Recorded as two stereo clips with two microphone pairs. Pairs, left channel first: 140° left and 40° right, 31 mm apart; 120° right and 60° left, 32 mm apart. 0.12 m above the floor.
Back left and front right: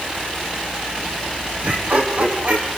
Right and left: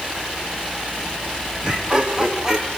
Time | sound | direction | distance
1.6 | laughter | 10° right | 4 m